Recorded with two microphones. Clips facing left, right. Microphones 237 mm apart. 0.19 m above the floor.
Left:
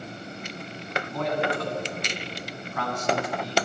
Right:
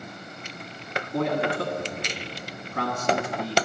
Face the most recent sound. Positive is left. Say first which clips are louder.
# right 3 dB
turn(degrees=-45)  # may be behind; listen again after turning